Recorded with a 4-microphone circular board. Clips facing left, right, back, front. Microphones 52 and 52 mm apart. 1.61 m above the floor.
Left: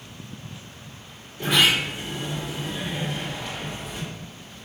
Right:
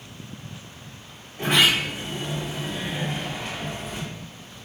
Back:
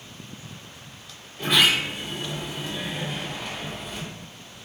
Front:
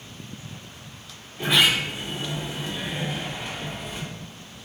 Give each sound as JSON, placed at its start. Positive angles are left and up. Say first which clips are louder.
{"t": 1.4, "sound": "a sliding door", "louder": "even, even", "azimuth_deg": -85, "distance_m": 1.3}